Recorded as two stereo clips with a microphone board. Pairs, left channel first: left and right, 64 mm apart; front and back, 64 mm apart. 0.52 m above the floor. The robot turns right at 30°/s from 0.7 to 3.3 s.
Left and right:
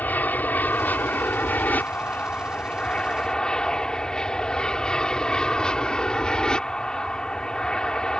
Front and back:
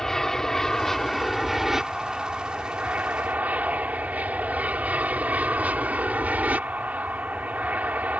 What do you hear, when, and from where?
0.0 s an aircraft: 75° left; by 8.2 s 150° left